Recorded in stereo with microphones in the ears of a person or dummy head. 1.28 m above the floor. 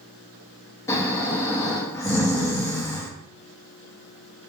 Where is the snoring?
20° left (ahead or behind), 0.5 m.